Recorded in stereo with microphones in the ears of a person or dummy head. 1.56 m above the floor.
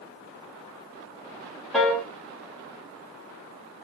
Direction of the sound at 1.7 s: Centre (ahead or behind).